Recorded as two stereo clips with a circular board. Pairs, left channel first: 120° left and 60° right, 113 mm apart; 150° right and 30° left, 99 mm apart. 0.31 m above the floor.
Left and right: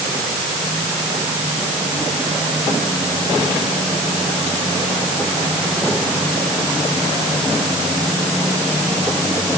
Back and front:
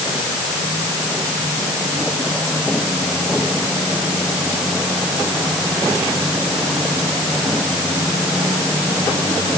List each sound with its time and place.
Only background noise.